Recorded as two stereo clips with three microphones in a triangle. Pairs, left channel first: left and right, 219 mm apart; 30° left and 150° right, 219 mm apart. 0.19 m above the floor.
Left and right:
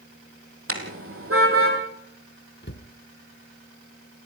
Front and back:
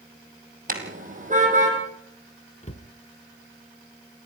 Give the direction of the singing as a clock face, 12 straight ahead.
I don't hear singing.